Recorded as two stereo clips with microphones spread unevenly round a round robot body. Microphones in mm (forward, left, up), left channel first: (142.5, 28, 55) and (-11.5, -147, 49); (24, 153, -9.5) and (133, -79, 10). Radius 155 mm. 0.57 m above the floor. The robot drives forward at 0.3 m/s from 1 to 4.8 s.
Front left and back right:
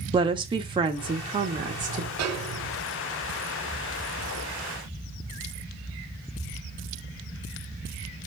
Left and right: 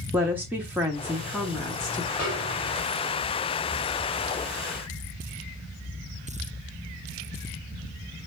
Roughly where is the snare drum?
Behind right.